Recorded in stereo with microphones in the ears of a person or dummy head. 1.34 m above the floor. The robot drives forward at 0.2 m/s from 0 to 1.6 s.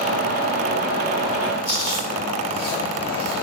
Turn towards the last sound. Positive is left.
turn(degrees=-30)  # may be behind; listen again after turning